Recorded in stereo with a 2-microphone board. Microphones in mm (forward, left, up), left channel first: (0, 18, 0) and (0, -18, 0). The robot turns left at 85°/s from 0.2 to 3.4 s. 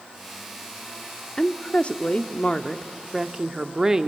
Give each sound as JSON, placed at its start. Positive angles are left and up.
{"t": 1.4, "sound": "a woman speaking", "azimuth_deg": 140, "distance_m": 0.8}